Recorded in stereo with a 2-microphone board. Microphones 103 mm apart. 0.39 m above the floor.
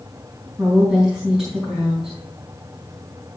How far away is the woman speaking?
About 4 m.